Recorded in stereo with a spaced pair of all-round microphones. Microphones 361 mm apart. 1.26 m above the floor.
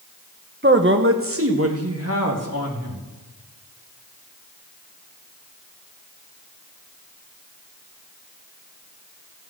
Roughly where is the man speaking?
Right.